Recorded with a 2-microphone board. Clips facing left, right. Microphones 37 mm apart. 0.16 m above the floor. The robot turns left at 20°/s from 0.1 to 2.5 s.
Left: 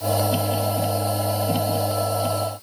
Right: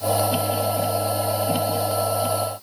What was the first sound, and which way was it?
Only background noise.